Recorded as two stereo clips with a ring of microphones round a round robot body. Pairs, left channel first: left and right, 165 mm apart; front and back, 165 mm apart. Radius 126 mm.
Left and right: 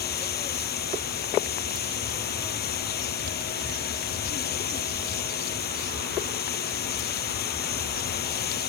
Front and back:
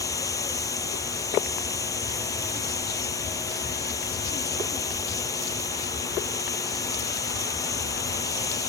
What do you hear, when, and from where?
0.0 s running water: 70° left